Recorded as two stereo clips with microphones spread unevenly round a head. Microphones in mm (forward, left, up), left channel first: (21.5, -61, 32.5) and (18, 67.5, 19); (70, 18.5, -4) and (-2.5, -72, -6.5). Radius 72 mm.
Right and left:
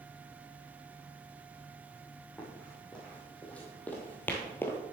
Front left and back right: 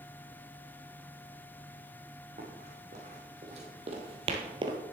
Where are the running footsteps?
170° right, 3.5 m; by 4.8 s 140° right, 1.2 m.